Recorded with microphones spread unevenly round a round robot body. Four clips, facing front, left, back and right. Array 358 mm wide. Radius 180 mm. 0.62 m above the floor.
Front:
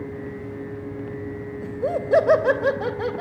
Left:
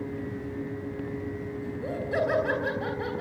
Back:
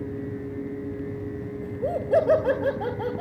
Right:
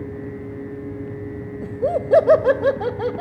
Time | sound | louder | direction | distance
1.6 | laughter | right 14 dB, front 3 dB | 65° right | 2.5 m